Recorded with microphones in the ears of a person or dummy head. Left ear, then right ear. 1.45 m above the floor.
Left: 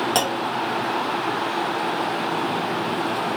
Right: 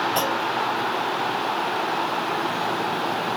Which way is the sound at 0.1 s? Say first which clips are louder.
Left 1 dB; 55° left (ahead or behind).